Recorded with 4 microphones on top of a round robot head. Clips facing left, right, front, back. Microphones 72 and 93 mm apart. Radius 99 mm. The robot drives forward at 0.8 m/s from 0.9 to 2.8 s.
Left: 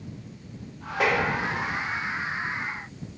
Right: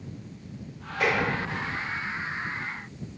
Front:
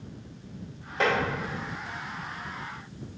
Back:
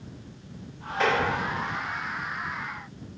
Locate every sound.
1.0 s tapping: 45° left, 1.5 m